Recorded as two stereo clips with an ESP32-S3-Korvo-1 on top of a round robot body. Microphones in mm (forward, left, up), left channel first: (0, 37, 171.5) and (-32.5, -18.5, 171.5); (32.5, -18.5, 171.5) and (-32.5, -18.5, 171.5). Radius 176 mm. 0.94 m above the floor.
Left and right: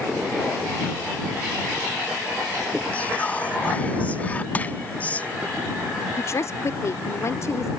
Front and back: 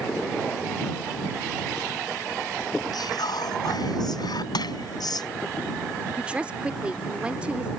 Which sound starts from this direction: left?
A woman speaking, at 6.2 s.